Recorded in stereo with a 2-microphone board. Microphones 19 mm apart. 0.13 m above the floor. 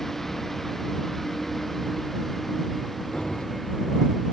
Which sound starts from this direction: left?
Keys jangling, at 3.1 s.